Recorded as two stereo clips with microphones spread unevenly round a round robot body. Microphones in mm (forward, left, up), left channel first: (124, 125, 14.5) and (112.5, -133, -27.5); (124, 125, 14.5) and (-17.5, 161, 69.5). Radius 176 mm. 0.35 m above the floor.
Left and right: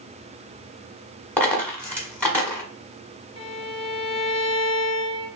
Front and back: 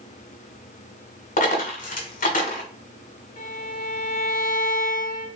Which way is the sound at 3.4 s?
20° left.